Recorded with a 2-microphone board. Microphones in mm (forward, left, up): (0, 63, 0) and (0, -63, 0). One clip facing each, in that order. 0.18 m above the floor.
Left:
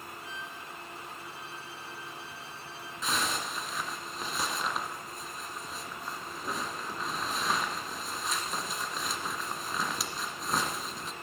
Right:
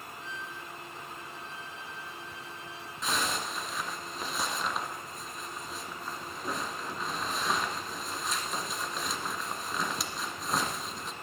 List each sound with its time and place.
0.2 s a violin: 35° left (ahead or behind), 3 m
3.0 s a zipper: centre (ahead or behind), 1.4 m